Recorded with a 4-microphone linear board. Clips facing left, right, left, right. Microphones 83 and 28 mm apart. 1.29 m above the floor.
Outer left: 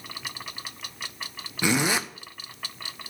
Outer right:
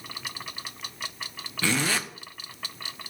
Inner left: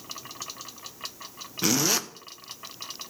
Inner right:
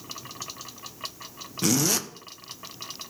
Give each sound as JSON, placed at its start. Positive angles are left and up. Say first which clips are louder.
{"t": 1.6, "sound": "a zipper", "louder": "outer left 3 dB, even", "side_deg": 15, "distance_m": 0.6}